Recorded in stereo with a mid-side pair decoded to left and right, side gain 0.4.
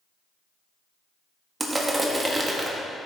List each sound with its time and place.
1.6 s crushing: 20° right, 1.5 m